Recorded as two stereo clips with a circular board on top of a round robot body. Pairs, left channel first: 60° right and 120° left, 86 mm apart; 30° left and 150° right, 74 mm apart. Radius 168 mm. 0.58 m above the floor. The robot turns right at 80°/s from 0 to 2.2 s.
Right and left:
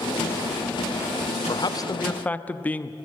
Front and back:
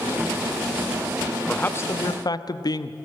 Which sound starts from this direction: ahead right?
A man speaking, at 1.4 s.